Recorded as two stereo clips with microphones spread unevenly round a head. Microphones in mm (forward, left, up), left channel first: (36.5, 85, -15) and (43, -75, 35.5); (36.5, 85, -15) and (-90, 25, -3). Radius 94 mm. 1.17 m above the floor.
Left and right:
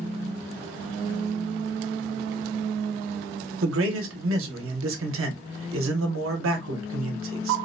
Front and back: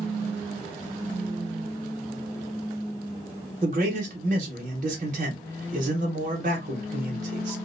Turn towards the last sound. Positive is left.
turn(degrees=-100)